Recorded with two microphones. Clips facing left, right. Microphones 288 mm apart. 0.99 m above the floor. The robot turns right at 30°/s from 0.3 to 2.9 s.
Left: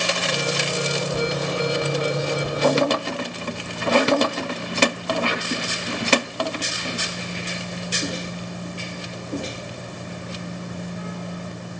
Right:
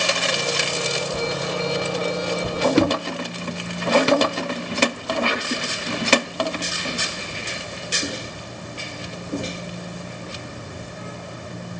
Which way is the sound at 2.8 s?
70° right (ahead or behind).